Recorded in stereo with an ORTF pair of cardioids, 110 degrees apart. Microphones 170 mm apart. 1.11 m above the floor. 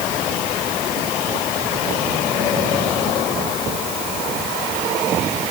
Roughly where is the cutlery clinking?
No cutlery clinking in this recording.